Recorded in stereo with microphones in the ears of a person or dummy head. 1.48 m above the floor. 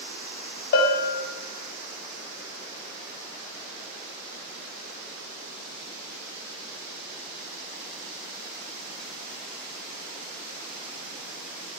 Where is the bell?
50° left (ahead or behind), 0.6 m.